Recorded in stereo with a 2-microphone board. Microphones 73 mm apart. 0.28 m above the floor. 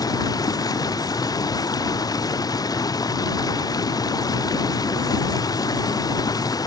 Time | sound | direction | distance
0.0 | running water | 60° left (ahead or behind) | ?